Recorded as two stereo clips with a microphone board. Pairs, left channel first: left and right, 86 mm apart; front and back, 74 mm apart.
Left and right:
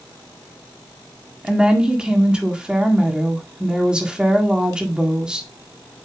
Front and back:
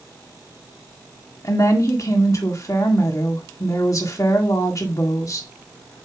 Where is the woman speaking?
15° right, 1.7 m.